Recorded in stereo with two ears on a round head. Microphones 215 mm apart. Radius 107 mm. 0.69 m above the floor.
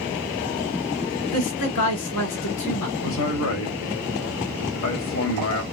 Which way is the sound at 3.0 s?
60° left (ahead or behind).